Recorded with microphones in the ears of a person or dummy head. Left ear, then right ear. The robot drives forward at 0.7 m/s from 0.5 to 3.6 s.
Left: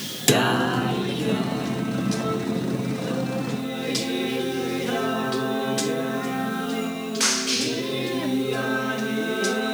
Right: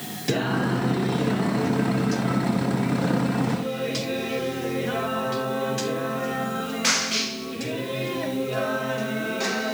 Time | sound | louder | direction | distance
0.3 | singing | left 5 dB | 45° left (ahead or behind) | 0.7 m